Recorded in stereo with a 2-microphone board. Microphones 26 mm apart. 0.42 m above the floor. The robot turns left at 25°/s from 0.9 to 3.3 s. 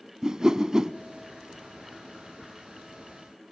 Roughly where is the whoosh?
Right.